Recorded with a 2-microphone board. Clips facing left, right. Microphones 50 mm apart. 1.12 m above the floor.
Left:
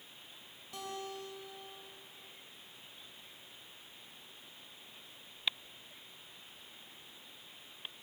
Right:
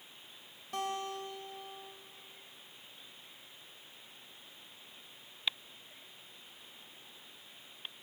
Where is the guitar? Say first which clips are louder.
Right 6 dB; 50° right (ahead or behind), 4.5 m.